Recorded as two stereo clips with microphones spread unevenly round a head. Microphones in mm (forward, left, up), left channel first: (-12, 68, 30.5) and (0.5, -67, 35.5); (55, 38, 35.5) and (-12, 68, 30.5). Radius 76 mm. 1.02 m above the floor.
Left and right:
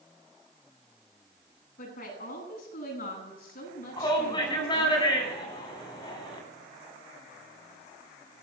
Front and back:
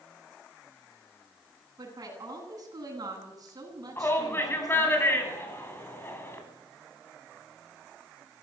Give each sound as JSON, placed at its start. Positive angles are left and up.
{"t": 1.8, "sound": "a woman speaking", "azimuth_deg": 120, "distance_m": 9.5}
{"t": 4.0, "sound": "a shout", "azimuth_deg": 35, "distance_m": 9.5}